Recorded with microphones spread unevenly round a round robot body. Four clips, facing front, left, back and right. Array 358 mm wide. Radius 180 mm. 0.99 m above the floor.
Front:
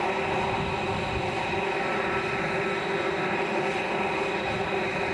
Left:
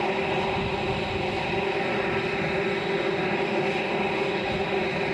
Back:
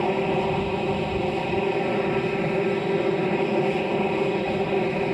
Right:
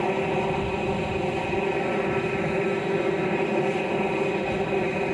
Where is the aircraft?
160° right.